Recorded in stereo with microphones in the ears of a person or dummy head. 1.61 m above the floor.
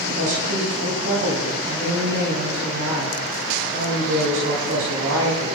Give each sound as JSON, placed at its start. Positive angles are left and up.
{"t": 0.1, "sound": "a woman speaking", "side_deg": -75, "distance_m": 9.5}